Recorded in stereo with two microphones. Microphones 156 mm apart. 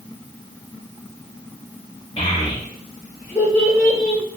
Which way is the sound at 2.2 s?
35° left (ahead or behind).